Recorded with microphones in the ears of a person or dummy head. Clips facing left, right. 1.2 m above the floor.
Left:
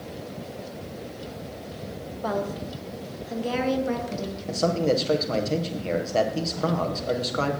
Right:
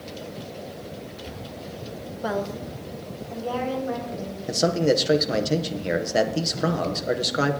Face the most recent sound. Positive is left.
turn(degrees=-40)  # may be behind; listen again after turning